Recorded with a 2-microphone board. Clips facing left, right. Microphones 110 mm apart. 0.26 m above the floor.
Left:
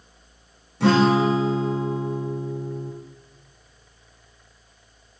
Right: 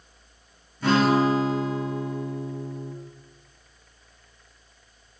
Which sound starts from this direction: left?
A guitar, at 0.8 s.